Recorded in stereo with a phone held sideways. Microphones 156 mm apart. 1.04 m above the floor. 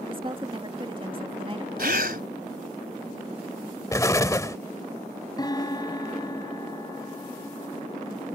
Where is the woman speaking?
35° right (ahead or behind).